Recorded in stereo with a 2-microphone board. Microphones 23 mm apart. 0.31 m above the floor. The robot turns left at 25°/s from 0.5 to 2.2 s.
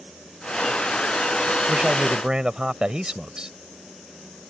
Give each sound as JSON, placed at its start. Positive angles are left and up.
{"t": 1.7, "sound": "a man speaking", "side_deg": -35}